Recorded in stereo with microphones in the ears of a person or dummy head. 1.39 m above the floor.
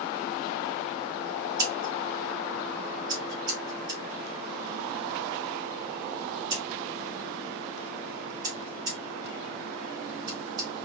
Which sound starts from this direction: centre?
Scissors, at 1.6 s.